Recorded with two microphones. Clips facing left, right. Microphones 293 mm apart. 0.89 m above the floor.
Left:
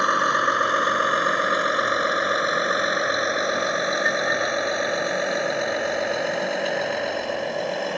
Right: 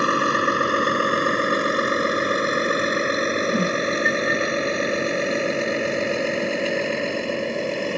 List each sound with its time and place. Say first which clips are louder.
0.0 s a vehicle: right 4 dB; 30° right (ahead or behind)
3.5 s a whoosh: right 4 dB; 40° right (ahead or behind)